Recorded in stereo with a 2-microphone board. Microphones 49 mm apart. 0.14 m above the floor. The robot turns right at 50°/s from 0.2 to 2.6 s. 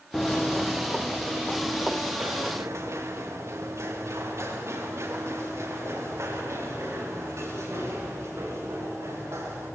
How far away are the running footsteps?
About 0.6 m.